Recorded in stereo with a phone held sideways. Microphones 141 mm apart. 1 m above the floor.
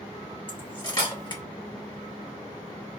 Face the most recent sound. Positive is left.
turn(degrees=30)  # may be behind; listen again after turning